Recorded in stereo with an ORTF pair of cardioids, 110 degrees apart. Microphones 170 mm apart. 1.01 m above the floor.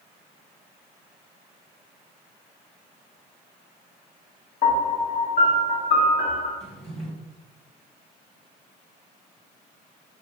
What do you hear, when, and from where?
4.6 s a piano: 60° left, 1.5 m
6.6 s a drawer: 40° left, 1.8 m